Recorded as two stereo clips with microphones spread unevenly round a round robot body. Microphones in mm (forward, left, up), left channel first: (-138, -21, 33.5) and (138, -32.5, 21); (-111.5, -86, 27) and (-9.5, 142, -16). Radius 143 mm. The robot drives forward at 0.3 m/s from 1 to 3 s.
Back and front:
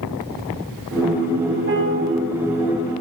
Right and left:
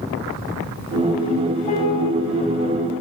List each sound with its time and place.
1.7 s a piano: 45° right, 1.7 m; by 2.1 s 50° right, 1.6 m